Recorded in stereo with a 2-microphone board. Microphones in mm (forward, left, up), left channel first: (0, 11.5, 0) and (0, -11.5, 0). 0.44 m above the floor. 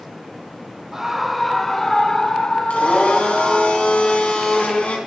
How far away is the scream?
About 1.5 m.